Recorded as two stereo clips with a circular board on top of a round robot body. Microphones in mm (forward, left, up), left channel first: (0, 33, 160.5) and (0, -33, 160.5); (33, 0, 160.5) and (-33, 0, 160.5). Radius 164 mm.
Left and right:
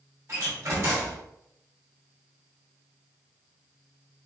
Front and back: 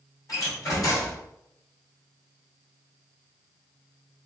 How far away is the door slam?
About 2.5 m.